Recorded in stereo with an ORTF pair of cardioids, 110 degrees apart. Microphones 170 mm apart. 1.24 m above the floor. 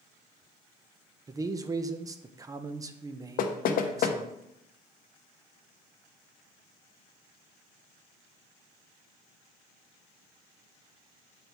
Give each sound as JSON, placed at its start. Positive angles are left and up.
{"t": 1.3, "sound": "a man speaking", "azimuth_deg": -20, "distance_m": 0.7}
{"t": 3.4, "sound": "knocking", "azimuth_deg": 55, "distance_m": 0.8}